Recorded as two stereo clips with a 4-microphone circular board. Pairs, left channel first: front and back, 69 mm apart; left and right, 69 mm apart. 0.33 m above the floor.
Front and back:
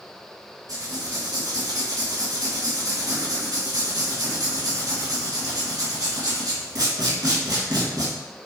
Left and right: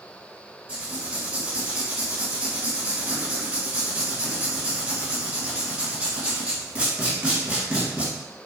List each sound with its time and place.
0.7 s writing: 165° right, 1.1 m